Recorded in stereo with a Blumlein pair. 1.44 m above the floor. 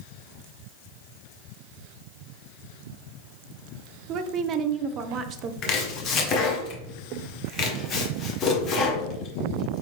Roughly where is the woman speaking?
Ahead right.